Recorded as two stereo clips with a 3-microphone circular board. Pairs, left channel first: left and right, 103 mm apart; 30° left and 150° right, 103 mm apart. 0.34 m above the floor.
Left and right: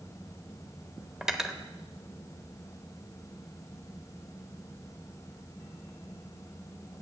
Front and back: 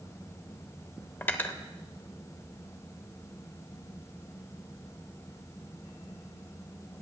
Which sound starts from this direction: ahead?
Cutlery clinking, at 1.2 s.